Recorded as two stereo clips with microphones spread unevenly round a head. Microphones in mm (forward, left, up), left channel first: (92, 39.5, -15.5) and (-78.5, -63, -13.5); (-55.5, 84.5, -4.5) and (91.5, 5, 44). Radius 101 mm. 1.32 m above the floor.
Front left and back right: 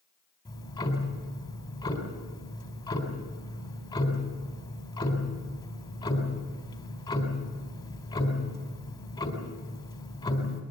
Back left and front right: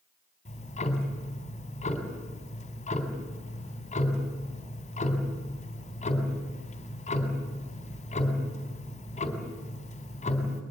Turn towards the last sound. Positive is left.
turn(degrees=100)